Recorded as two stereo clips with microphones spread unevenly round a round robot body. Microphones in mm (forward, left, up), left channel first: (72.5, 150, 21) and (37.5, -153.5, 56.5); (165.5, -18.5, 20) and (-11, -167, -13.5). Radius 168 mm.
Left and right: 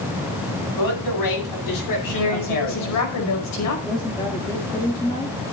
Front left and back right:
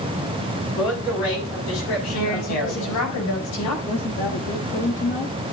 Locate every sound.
0.8 s a man speaking: 70° left, 7.5 m; by 3.0 s 60° left, 7 m
2.1 s a woman speaking: 50° left, 5 m
3.9 s a woman speaking: 10° left, 1.7 m